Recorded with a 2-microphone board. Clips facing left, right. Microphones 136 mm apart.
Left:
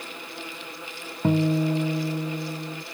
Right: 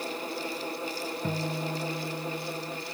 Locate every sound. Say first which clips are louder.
1.2 s a guitar: left 13 dB; 65° left (ahead or behind)